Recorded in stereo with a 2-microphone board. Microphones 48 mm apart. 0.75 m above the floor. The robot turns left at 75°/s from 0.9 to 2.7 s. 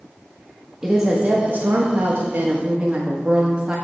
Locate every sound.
0.8 s a woman speaking: 10° right, 1.1 m; by 3.8 s 145° right, 1.1 m